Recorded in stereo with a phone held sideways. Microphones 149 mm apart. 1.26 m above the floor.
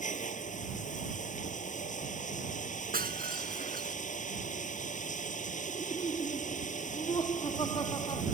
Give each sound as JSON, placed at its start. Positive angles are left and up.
{"t": 0.0, "sound": "running water", "side_deg": 55}
{"t": 2.9, "sound": "breaking glass", "side_deg": -80}
{"t": 5.7, "sound": "laughter", "side_deg": 30}